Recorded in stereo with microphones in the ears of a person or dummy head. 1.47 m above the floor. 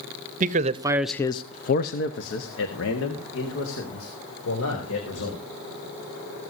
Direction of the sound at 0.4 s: 50° right (ahead or behind).